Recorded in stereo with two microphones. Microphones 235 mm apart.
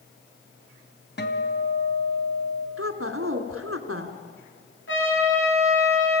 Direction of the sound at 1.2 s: 45° left (ahead or behind).